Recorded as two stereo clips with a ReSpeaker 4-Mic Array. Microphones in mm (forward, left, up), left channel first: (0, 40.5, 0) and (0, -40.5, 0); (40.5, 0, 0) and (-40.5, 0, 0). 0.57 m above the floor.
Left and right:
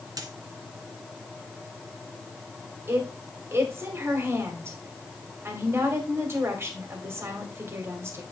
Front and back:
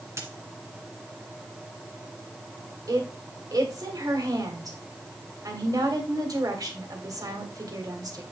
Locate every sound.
0.2 s a dropped coin: 125° right, 1.6 m
2.9 s a woman speaking: 145° right, 2.5 m